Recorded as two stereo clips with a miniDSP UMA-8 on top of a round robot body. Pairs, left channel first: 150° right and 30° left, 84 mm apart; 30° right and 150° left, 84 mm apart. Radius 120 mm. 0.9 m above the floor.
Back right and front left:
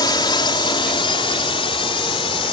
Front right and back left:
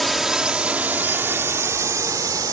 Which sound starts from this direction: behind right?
A drone, at 0.0 s.